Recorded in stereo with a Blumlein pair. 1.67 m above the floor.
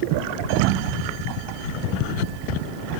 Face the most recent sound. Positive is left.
turn(degrees=-45)